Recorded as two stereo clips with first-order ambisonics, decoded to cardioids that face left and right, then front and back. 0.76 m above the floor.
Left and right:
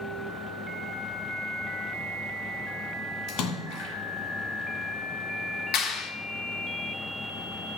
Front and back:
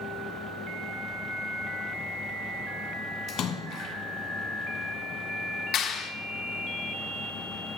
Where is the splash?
55° left, 1.8 m.